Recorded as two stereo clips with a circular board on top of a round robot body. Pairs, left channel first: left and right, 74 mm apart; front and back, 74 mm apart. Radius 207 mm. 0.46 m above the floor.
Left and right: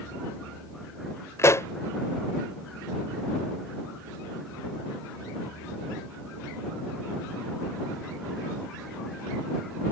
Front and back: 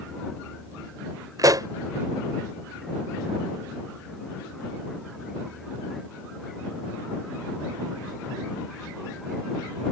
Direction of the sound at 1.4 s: 140° left.